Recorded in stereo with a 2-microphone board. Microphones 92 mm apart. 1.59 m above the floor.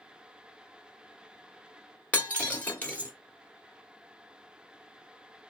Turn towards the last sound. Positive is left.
turn(degrees=20)  # may be behind; listen again after turning